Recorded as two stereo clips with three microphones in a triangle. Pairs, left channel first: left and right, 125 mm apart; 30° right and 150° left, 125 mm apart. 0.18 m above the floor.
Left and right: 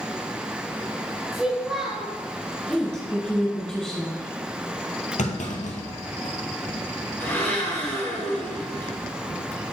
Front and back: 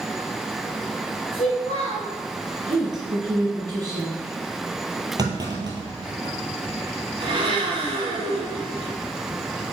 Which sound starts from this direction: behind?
A woman speaking, at 2.7 s.